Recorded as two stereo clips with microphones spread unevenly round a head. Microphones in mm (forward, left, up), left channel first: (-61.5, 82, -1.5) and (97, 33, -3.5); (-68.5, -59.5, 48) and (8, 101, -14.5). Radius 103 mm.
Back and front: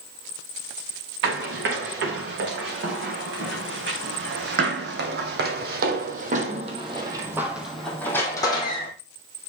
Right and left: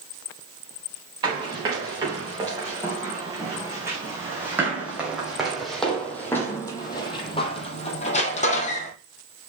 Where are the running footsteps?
10° right, 4.5 m; by 8.9 s 140° right, 1.9 m.